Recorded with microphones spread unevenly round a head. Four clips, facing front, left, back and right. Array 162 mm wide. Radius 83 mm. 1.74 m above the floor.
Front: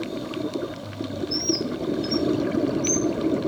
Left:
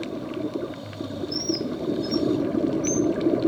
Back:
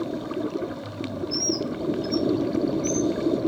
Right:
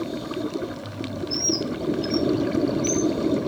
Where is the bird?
130° left, 4 m.